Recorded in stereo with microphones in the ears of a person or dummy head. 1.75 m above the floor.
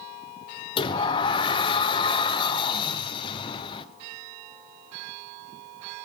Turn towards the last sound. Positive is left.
turn(degrees=25)  # may be behind; listen again after turning